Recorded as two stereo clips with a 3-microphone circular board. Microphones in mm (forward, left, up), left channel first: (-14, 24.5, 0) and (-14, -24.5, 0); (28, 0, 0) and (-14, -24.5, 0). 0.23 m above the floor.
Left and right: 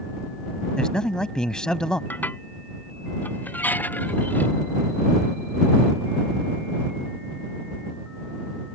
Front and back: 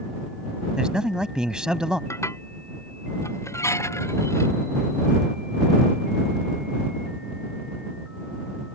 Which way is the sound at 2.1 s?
40° left.